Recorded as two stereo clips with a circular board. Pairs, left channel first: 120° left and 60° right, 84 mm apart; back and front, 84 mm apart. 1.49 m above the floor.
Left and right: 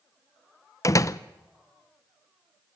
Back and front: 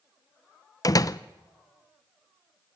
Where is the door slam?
155° left, 0.6 m.